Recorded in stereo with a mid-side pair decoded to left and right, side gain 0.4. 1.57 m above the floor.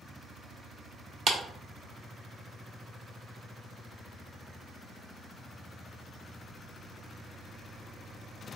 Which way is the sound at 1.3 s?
60° right.